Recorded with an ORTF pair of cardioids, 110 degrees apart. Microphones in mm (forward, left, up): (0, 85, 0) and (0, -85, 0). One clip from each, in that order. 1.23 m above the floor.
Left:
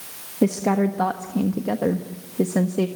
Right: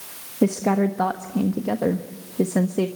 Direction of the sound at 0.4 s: Straight ahead.